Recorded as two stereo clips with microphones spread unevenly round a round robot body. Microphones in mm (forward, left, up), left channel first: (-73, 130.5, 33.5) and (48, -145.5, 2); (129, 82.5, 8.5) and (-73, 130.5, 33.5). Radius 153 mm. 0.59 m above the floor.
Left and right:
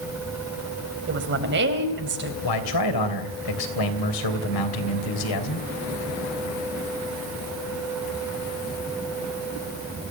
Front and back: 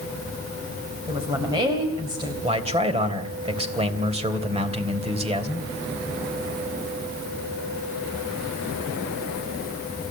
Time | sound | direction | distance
1.1 | a woman speaking | 115° right | 3.5 m
2.4 | a man speaking | 105° left | 3 m